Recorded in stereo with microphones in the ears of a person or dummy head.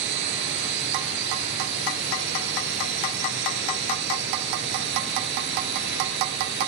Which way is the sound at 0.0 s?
60° right (ahead or behind).